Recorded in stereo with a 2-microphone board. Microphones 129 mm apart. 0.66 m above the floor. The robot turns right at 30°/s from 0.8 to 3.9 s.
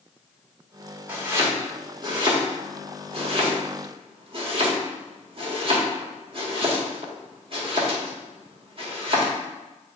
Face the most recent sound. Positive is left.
turn(degrees=-45)  # may be behind; listen again after turning